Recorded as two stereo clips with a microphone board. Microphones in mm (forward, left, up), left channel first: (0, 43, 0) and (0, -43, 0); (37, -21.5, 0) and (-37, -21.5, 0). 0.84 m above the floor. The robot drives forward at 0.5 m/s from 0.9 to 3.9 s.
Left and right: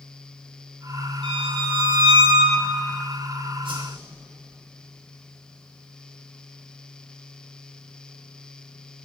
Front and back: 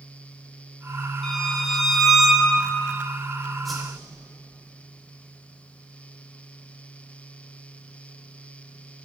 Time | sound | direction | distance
1.2 | a violin | 80° right | 2.5 m
3.6 | a whoosh | 90° right | 2.5 m